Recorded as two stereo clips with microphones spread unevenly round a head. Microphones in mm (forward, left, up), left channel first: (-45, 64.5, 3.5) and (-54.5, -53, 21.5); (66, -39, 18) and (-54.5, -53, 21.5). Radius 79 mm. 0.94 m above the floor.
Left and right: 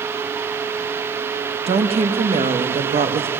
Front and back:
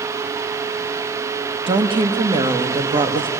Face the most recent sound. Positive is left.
turn(degrees=-130)